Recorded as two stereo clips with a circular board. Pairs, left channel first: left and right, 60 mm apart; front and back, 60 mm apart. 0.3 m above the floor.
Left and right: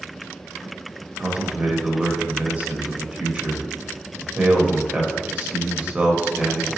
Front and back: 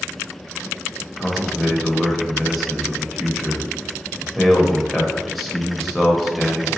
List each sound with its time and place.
1.2 s a man speaking: 90° right, 0.9 m